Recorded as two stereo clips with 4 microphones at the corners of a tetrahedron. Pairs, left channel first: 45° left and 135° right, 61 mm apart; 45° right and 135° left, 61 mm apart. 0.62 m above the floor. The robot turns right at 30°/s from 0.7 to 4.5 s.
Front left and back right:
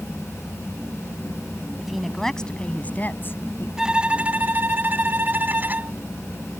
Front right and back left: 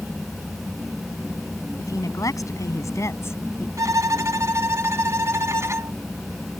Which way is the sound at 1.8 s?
50° right.